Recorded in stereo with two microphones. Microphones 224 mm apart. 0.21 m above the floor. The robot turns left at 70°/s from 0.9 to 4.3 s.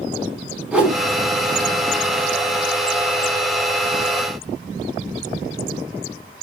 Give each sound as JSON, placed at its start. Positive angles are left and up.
{"t": 0.7, "sound": "a whoosh", "side_deg": -5, "distance_m": 0.6}